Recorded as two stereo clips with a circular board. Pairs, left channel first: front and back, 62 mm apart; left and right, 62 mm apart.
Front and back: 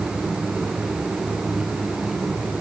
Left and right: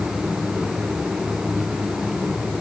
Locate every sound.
Only background noise.